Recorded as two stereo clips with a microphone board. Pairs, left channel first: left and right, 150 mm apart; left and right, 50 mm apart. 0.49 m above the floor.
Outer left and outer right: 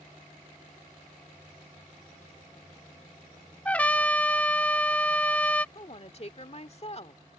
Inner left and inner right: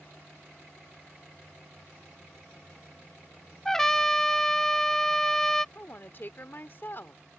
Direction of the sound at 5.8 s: 45° left (ahead or behind).